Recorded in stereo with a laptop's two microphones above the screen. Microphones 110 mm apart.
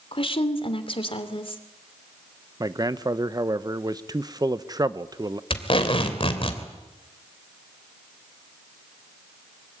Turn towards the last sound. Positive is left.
turn(degrees=55)  # may be behind; listen again after turning